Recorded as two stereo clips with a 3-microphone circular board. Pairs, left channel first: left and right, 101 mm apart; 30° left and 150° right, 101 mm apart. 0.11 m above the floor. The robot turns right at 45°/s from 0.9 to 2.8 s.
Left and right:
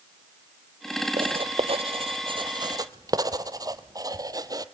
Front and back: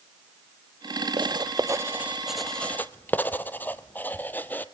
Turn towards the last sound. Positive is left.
turn(degrees=-45)